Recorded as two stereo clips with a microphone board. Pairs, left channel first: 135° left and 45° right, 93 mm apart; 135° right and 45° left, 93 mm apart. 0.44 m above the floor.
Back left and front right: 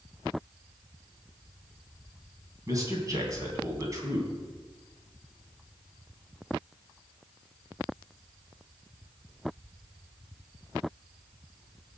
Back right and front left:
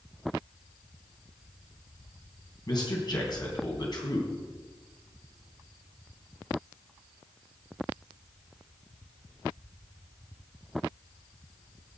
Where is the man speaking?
95° right, 3 m.